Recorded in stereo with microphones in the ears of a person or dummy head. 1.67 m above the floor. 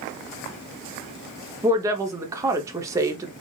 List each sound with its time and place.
1.6 s a woman speaking: 20° right (ahead or behind), 1.0 m